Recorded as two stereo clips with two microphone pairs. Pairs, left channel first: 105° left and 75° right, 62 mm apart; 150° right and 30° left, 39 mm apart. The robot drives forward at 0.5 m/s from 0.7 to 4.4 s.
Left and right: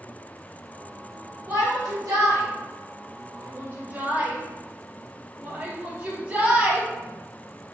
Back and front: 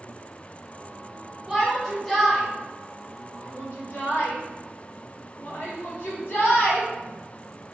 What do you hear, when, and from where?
1.5 s a shout: 55° right, 1.0 m; by 6.9 s 140° right, 1.3 m